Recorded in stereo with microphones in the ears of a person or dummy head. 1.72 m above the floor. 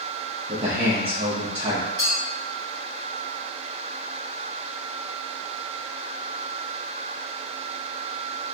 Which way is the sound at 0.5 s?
25° right (ahead or behind).